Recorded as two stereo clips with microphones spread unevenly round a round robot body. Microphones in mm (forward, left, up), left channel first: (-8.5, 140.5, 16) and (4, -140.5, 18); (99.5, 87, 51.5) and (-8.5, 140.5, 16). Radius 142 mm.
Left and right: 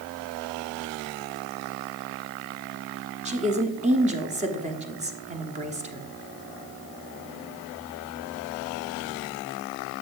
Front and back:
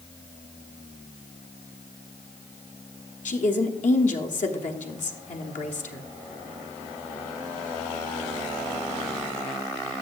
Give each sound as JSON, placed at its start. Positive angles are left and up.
{"t": 3.2, "sound": "a woman speaking", "azimuth_deg": -25, "distance_m": 1.2}